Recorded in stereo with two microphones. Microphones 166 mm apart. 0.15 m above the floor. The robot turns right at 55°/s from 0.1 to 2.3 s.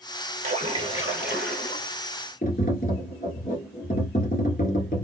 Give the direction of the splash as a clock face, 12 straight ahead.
2 o'clock.